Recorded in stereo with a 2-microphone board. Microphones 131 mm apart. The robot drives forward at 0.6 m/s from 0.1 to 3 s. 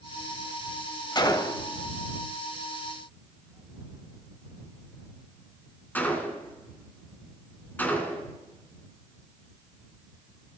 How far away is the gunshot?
About 0.7 m.